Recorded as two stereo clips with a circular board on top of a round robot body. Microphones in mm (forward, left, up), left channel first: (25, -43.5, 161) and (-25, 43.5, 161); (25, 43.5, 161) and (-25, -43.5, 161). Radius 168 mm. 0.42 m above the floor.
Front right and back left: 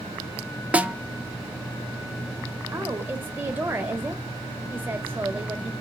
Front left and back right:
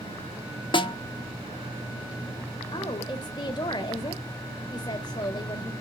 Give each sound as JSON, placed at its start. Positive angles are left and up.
{"t": 0.7, "sound": "a snare drum", "azimuth_deg": 45, "distance_m": 1.0}
{"t": 2.7, "sound": "a woman speaking", "azimuth_deg": 60, "distance_m": 1.4}